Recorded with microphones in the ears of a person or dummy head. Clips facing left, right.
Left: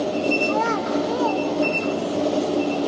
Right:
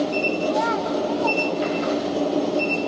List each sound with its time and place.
0.5 s a child speaking: 55° left (ahead or behind), 1.8 m